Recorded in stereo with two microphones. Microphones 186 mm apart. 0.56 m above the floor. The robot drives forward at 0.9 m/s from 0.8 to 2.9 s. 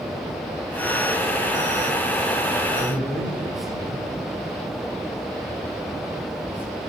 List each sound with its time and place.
2.8 s a man speaking: 55° right (ahead or behind), 9.5 m